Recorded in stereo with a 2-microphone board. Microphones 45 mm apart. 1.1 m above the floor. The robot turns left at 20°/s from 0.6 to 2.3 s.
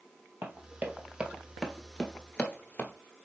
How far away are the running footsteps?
About 1.8 m.